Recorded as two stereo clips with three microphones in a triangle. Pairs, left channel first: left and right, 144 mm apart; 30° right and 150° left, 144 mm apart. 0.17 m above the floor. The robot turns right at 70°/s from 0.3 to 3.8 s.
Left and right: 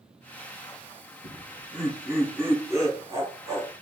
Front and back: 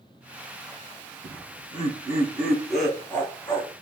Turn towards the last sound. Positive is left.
turn(degrees=-45)